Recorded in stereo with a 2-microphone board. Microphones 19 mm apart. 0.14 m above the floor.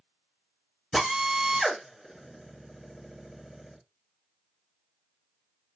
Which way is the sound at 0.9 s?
5° left (ahead or behind).